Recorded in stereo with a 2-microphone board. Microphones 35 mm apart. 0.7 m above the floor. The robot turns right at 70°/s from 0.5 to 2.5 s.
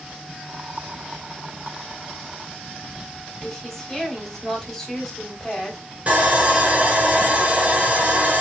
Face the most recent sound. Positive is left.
turn(degrees=-40)  # may be behind; listen again after turning